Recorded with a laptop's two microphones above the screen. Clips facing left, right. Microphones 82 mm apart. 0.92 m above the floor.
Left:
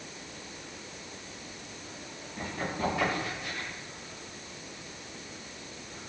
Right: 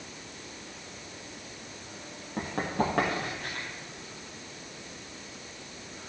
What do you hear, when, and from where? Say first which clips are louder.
2.4 s running footsteps: right 4 dB; 80° right, 6 m